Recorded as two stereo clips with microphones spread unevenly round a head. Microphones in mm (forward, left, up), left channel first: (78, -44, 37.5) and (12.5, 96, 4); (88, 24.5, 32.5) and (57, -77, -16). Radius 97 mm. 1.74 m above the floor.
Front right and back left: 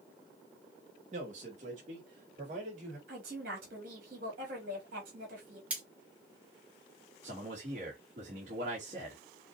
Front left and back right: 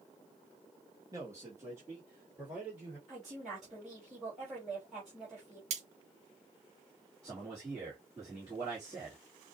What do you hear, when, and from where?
1.1 s a man speaking: 175° left, 1.6 m; by 3.0 s 170° left, 4 m
3.1 s a woman speaking: 165° left, 3.5 m
5.7 s cutlery clinking: 150° right, 1.0 m
7.2 s a man speaking: 170° left, 2.5 m